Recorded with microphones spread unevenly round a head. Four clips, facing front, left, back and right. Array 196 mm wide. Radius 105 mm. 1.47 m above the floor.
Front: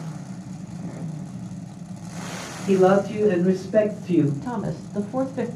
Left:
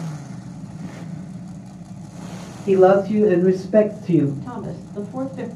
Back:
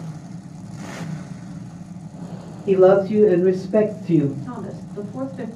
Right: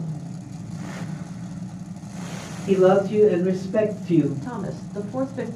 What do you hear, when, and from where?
2.7 s a man speaking: 115° left, 1.8 m; by 4.3 s 110° left, 0.9 m
4.4 s a woman speaking: 10° right, 0.6 m